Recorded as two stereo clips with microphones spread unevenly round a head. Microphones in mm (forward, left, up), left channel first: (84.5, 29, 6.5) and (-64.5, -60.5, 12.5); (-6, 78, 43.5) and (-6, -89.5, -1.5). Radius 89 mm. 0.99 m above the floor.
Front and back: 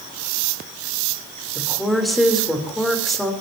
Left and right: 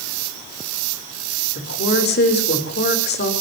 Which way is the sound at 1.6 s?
120° left.